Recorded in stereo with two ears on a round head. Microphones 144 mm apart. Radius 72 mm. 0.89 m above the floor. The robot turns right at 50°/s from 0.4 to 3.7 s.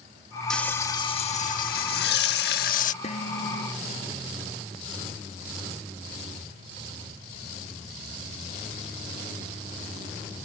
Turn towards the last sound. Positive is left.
turn(degrees=75)